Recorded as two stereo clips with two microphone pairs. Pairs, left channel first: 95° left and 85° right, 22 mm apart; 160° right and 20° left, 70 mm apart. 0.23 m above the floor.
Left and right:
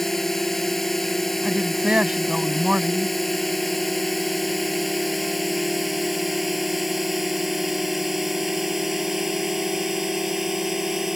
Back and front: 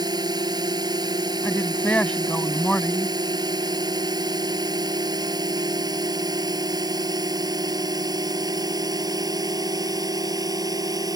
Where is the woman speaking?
95° right.